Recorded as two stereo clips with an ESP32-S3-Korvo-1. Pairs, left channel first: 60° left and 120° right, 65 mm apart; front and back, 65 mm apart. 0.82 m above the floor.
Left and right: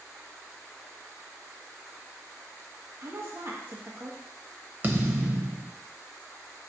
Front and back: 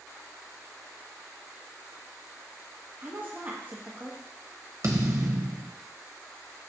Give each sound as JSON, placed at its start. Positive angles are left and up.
{"t": 3.0, "sound": "a woman speaking", "azimuth_deg": -140, "distance_m": 1.0}
{"t": 4.8, "sound": "a thud", "azimuth_deg": -170, "distance_m": 0.8}